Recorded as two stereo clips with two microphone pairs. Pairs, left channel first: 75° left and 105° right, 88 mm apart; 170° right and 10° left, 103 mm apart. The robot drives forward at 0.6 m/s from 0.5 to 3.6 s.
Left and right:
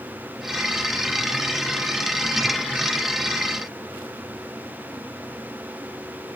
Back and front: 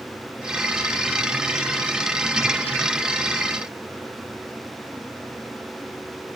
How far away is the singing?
No singing in this recording.